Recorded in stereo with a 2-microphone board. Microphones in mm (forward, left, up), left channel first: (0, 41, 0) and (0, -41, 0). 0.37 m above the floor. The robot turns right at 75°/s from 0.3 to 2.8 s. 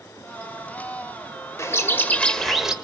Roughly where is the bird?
Left.